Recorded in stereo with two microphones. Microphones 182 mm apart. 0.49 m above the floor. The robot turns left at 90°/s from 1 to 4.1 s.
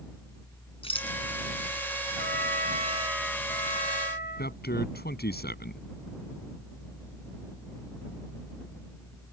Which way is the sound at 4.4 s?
70° left (ahead or behind).